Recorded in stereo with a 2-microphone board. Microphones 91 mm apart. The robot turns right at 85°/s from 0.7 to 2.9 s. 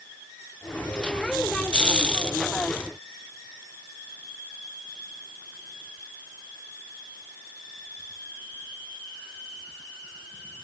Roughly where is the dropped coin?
No dropped coin in this recording.